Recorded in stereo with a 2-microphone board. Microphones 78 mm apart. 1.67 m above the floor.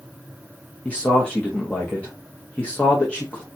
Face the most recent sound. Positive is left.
turn(degrees=15)  # may be behind; listen again after turning